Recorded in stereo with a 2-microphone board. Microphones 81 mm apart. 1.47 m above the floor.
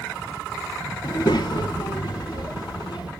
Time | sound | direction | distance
1.0 | a child speaking | 55° left (ahead or behind) | 0.7 m